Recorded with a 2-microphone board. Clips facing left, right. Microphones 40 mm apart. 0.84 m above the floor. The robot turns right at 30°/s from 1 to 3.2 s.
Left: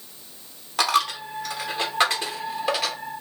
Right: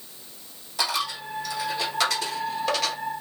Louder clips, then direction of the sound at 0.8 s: Left 6 dB; 60° left (ahead or behind).